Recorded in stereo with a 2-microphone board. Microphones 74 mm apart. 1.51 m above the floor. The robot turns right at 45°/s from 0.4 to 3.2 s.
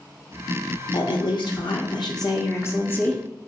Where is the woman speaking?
65° left, 0.7 m; by 3.2 s 165° left, 0.7 m.